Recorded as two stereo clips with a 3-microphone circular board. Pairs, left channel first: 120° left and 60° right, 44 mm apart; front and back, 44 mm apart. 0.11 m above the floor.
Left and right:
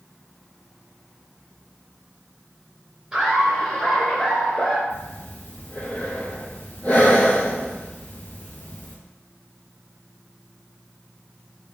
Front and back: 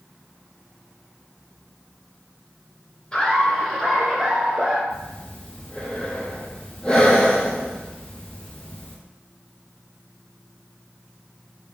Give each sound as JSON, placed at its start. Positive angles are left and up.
{"t": 3.1, "sound": "laughter", "azimuth_deg": -10, "distance_m": 1.1}
{"t": 4.9, "sound": "breathing", "azimuth_deg": 65, "distance_m": 0.8}